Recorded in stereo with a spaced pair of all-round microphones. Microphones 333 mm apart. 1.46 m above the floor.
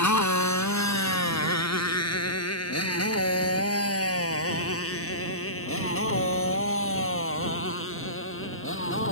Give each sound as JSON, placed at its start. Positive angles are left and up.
{"t": 0.0, "sound": "a motorcycle", "side_deg": 60}